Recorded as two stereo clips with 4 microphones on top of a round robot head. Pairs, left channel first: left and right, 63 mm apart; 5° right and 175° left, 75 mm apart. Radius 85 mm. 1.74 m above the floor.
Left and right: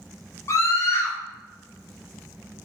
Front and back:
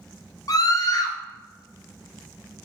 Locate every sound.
0.5 s a scream: 35° left, 0.8 m